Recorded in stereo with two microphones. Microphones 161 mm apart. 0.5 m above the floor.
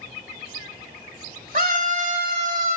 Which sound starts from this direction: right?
A scream, at 1.5 s.